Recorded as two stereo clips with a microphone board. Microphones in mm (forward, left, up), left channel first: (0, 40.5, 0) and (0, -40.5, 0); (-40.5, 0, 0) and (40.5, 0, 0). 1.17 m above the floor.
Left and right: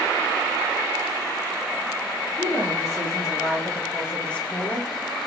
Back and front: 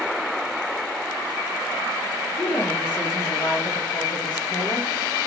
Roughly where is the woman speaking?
Behind.